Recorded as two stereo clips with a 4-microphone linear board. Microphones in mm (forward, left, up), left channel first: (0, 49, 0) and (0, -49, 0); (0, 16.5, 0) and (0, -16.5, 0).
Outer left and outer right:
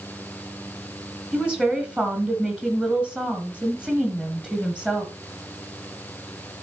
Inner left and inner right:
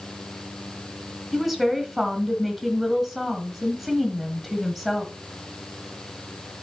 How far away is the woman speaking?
About 1.9 m.